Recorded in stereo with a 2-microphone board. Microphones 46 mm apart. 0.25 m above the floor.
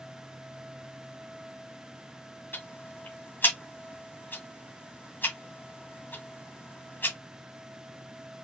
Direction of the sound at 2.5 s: 45° left (ahead or behind).